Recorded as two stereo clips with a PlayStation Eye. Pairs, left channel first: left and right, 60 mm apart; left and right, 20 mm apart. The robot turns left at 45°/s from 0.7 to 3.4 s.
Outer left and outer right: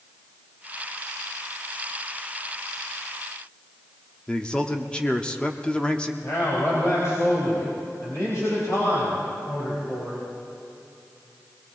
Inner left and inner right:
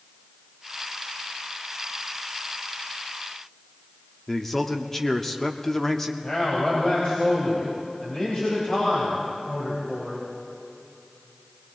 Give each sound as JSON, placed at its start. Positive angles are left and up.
{"t": 4.3, "sound": "a man speaking", "side_deg": 15, "distance_m": 0.8}
{"t": 6.2, "sound": "a man speaking", "side_deg": 55, "distance_m": 3.5}